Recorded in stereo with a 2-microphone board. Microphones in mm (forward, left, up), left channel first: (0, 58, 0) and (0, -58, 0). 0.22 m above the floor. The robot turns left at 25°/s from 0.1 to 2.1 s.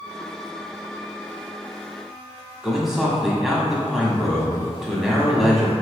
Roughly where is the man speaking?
Centre.